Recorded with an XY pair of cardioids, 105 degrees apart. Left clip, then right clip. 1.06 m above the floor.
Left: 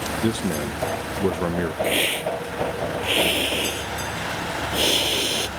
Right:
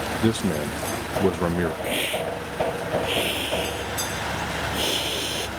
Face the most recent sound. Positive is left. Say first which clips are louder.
# left 3 dB
turn(degrees=30)